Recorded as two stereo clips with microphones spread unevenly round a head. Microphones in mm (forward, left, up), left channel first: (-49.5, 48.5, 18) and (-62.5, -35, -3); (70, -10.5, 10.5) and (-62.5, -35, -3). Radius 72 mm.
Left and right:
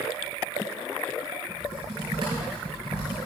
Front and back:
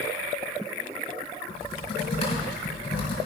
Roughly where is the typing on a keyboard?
Ahead right.